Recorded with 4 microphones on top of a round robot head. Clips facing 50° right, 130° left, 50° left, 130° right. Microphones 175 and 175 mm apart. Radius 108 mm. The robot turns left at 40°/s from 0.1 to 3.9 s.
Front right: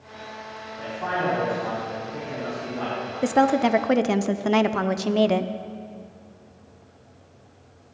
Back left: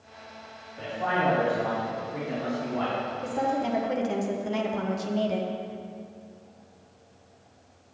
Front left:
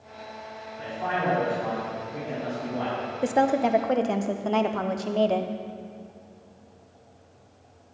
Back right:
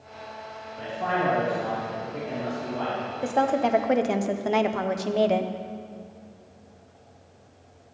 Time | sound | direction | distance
0.8 | a man speaking | 165° right | 4 m
3.2 | a woman speaking | 20° right | 0.5 m